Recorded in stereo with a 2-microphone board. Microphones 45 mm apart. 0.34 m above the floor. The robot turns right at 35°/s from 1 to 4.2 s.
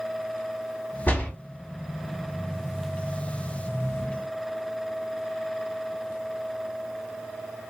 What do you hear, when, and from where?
1.1 s a door slam: 35° left (ahead or behind), 1.4 m; by 1.3 s 25° left (ahead or behind), 1.4 m